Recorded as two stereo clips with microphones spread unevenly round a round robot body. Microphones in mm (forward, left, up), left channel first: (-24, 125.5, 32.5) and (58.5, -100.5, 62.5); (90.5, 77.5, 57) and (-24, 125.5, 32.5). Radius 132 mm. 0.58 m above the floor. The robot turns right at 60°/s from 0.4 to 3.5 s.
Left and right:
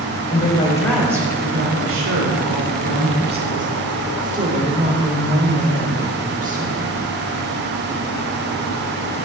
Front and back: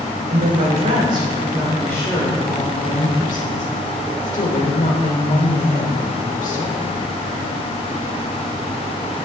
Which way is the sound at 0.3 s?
165° left.